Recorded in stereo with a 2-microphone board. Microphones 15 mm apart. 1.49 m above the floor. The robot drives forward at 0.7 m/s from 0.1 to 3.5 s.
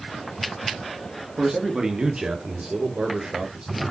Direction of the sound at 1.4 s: 55° right (ahead or behind).